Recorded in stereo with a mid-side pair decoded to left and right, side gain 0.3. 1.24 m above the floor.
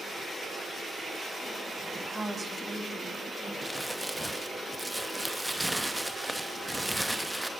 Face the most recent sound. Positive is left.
turn(degrees=0)